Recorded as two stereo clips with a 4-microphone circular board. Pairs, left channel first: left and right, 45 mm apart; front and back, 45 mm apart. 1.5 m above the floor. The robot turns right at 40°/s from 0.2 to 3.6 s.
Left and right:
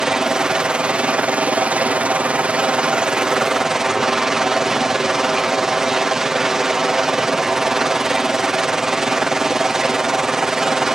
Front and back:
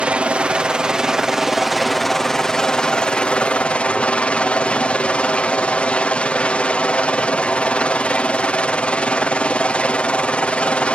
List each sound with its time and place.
0.0 s a helicopter: 155° right; by 10.9 s 20° right